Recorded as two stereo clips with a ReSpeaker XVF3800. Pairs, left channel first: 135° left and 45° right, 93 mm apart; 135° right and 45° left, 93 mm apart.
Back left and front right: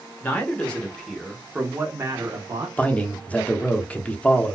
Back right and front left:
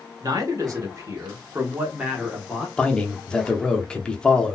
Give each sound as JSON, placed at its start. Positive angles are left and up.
{"t": 0.2, "sound": "a man speaking", "azimuth_deg": 75, "distance_m": 1.5}
{"t": 2.8, "sound": "a man speaking", "azimuth_deg": 165, "distance_m": 0.7}